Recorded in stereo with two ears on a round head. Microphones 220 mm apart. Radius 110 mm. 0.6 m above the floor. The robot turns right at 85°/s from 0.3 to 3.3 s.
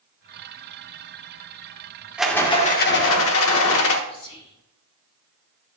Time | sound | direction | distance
2.2 | a rattle | 5° right | 1.1 m
4.1 | whispering | 55° left (ahead or behind) | 3.5 m